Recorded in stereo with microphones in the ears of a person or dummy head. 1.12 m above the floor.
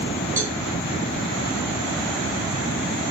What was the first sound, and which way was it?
A cowbell, 15° right (ahead or behind).